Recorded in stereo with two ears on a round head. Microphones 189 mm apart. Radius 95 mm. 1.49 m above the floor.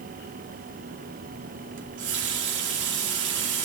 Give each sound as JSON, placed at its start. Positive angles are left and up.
{"t": 1.8, "sound": "a running tap", "side_deg": -60, "distance_m": 2.5}